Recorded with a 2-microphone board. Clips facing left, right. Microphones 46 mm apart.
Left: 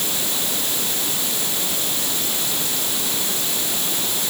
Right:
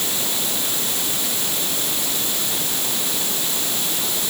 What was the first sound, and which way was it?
Only background noise.